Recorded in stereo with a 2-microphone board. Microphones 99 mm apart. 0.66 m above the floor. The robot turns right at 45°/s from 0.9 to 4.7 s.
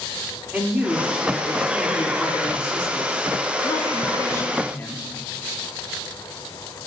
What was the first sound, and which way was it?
A woman speaking, 20° right.